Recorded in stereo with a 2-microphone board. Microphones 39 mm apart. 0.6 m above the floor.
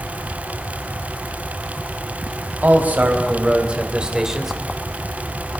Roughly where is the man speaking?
Right.